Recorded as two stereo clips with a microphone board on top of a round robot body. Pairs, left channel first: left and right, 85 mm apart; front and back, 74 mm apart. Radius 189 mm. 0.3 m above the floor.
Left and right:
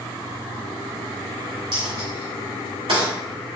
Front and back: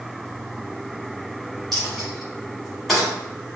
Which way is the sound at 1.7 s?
85° right.